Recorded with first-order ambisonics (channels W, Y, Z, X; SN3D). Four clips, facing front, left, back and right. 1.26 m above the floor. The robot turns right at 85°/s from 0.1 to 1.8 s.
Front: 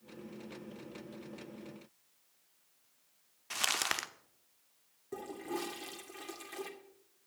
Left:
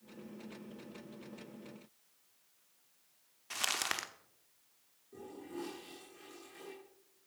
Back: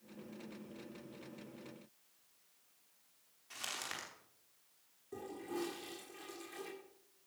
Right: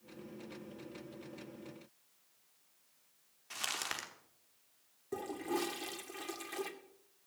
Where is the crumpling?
20° left, 1.0 m.